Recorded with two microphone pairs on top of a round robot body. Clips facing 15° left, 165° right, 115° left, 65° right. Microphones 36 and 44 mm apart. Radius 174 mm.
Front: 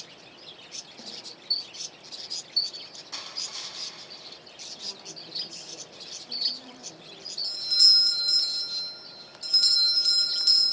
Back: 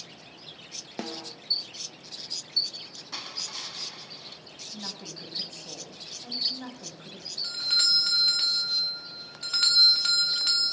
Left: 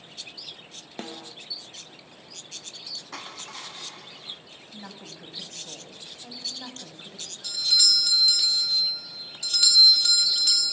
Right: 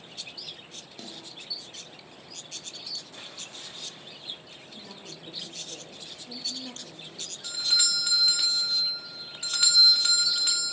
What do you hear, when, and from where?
1.0 s a snare drum: 165° left, 1.3 m
3.1 s crushing: 115° left, 1.1 m
4.7 s a woman speaking: 145° left, 6 m
7.4 s a doorbell: 120° right, 2 m